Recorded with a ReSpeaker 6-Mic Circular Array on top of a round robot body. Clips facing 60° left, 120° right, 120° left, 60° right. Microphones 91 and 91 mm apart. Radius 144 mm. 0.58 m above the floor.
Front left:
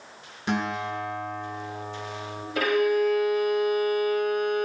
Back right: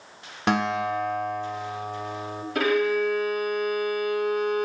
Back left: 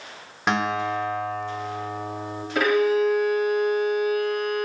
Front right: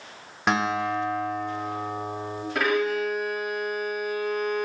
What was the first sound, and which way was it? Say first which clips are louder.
A guitar: back right 4 dB, even; 150° right.